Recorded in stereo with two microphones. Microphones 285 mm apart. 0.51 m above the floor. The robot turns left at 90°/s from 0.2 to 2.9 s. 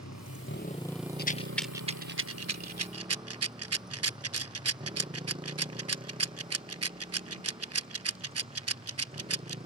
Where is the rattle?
35° left (ahead or behind); by 9.6 s 60° right (ahead or behind).